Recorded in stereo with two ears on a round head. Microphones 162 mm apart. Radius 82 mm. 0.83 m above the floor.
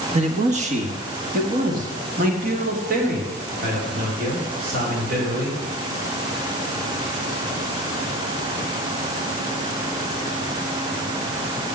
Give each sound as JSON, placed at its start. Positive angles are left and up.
{"t": 0.1, "sound": "a man speaking", "side_deg": -40, "distance_m": 1.2}